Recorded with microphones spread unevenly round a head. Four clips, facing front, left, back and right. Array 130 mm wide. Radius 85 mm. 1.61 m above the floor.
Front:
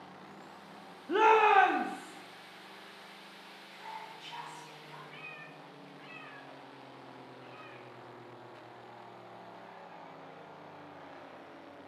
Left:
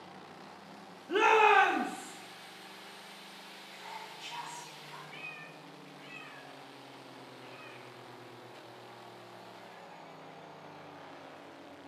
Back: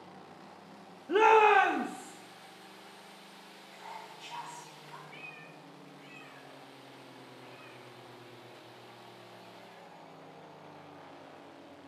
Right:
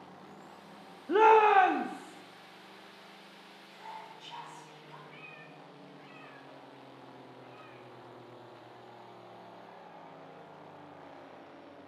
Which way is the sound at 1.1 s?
125° right.